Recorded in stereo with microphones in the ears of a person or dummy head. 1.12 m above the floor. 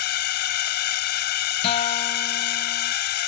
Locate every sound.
0.0 s a drone: 60° left (ahead or behind)
1.6 s a guitar: 30° left (ahead or behind)